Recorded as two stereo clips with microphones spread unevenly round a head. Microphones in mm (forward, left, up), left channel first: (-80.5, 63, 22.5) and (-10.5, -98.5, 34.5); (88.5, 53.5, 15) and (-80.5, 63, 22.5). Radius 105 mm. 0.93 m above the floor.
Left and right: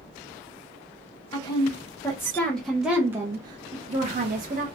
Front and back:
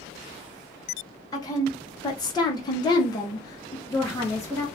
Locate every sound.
1.3 s a woman speaking: 60° left, 1.4 m; by 4.7 s 75° right, 1.1 m